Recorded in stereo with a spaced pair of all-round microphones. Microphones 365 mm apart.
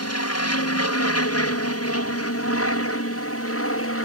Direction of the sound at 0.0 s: 40° left (ahead or behind).